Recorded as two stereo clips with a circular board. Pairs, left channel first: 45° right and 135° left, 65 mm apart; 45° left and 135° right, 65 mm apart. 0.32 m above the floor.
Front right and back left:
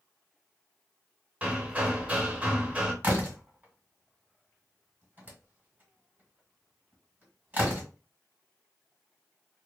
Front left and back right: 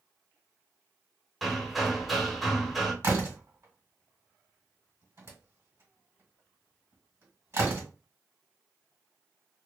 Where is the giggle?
No giggle in this recording.